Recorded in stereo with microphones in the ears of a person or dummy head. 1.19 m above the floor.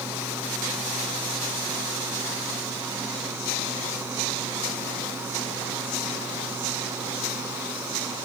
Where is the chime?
No chime in this recording.